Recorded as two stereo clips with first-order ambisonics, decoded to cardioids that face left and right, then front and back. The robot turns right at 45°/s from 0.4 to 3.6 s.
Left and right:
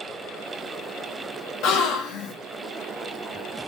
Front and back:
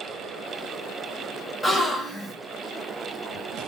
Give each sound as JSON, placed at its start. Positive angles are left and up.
{"t": 1.6, "sound": "a gasp", "azimuth_deg": 75, "distance_m": 0.6}